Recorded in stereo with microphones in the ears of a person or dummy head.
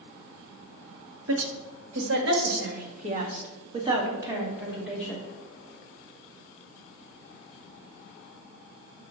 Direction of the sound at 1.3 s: 90° right.